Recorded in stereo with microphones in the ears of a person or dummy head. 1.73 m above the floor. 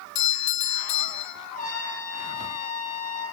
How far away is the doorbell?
About 2.5 m.